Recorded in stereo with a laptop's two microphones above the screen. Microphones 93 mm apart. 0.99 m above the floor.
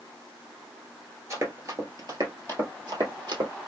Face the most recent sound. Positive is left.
turn(degrees=-55)  # may be behind; listen again after turning